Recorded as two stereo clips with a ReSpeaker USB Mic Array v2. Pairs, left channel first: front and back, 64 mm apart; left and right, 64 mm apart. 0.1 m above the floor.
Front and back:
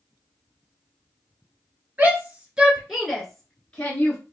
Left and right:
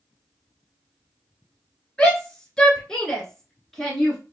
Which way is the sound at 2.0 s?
155° left.